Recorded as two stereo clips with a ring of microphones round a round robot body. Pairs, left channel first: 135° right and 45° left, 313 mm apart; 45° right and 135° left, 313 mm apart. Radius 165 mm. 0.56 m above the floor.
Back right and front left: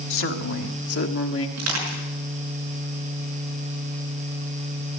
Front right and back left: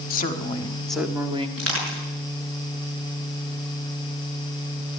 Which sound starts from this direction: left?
Crushing, at 1.6 s.